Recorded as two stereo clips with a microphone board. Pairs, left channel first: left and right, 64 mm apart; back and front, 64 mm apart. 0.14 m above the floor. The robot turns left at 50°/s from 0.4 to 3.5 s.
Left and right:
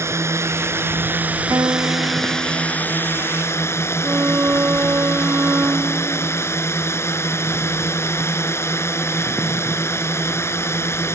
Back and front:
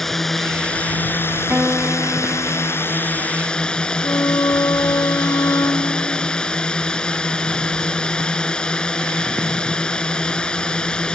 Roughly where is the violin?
Behind right.